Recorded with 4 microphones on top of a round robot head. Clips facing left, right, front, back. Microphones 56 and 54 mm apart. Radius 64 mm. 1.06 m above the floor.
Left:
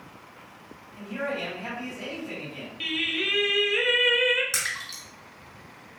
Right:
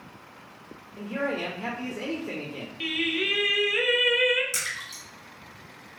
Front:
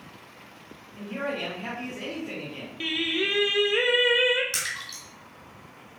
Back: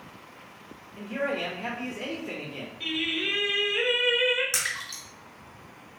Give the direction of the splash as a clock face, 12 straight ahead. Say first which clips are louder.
Left 2 dB, back 1 dB; 8 o'clock.